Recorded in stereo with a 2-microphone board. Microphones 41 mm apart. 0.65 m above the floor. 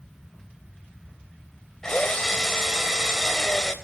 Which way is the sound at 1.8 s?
15° left (ahead or behind).